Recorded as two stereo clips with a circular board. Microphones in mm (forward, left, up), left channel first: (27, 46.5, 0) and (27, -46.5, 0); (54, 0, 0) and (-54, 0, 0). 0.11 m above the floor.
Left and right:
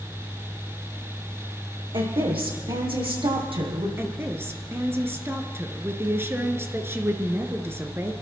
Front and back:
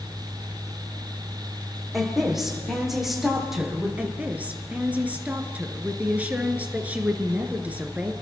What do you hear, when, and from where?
1.9 s a woman speaking: 90° right, 5.5 m
4.0 s a woman speaking: 120° right, 1.7 m